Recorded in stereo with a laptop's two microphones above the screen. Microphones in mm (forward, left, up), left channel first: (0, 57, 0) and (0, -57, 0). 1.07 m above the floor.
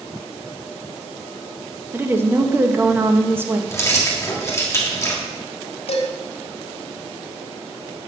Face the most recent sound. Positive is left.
turn(degrees=65)  # may be behind; listen again after turning